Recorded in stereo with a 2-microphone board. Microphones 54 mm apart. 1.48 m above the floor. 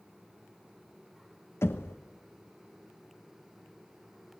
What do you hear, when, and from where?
1.6 s knocking: 50° left (ahead or behind), 1.0 m